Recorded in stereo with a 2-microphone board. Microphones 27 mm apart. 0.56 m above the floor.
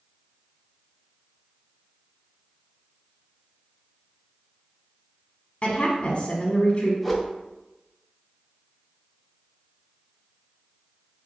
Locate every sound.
5.6 s a woman speaking: 35° left (ahead or behind), 0.8 m
7.0 s a whoosh: centre (ahead or behind), 0.5 m